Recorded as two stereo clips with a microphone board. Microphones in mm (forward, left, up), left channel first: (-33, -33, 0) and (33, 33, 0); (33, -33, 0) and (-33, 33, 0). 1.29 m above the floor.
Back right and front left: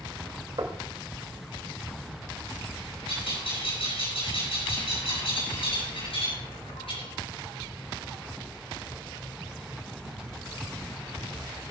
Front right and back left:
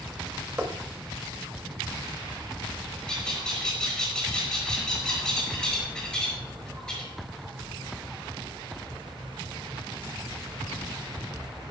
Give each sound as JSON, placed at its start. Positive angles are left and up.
{"t": 0.6, "sound": "knocking", "azimuth_deg": 75, "distance_m": 2.5}
{"t": 3.1, "sound": "a bird", "azimuth_deg": -125, "distance_m": 6.5}